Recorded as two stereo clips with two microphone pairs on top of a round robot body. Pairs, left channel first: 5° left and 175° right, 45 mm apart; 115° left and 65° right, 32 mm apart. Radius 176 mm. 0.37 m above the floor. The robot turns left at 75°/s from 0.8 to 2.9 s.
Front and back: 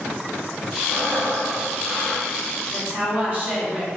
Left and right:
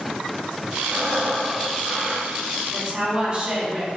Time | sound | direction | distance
0.9 | breathing | 25° left | 1.8 m
2.7 | a woman speaking | 110° right | 1.9 m